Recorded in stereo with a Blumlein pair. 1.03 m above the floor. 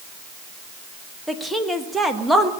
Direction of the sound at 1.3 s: Straight ahead.